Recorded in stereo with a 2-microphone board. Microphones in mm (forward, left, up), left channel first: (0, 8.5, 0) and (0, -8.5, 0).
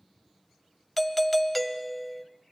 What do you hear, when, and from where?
1.0 s a doorbell: centre (ahead or behind), 1.4 m